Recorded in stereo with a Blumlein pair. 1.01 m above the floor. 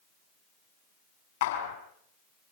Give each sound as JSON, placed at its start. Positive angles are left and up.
{"t": 1.4, "sound": "a clap", "azimuth_deg": 55, "distance_m": 5.0}